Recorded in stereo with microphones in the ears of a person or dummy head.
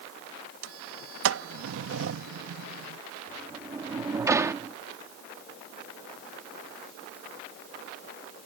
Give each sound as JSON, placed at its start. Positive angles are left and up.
{"t": 0.6, "sound": "a sliding door", "side_deg": -80}
{"t": 3.3, "sound": "a sliding door", "side_deg": -20}